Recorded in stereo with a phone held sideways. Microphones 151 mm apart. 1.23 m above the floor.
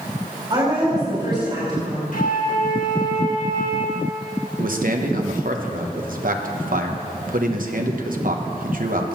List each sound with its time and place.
0.5 s a woman speaking: 30° right (ahead or behind), 4 m
2.1 s a flute: 65° left (ahead or behind), 1.6 m
4.6 s a man speaking: 65° right (ahead or behind), 1.0 m